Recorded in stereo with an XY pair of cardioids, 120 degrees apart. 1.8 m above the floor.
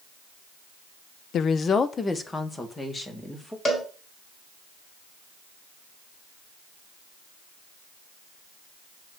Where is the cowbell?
30° left, 4 m.